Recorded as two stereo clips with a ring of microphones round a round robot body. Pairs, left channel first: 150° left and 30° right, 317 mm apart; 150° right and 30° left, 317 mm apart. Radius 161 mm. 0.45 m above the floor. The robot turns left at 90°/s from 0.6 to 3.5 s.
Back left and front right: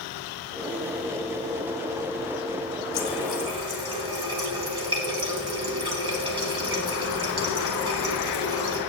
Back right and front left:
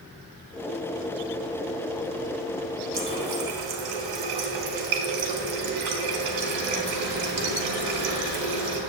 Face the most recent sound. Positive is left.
turn(degrees=45)